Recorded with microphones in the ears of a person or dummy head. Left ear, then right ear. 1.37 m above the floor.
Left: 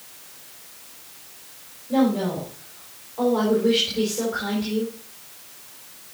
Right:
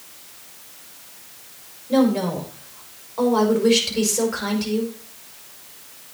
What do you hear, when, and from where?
1.9 s a woman speaking: 75° right (ahead or behind), 5 m